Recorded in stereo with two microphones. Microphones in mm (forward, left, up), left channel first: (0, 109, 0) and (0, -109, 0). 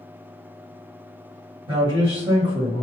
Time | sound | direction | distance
1.7 | a man speaking | 25° right (ahead or behind) | 1.6 m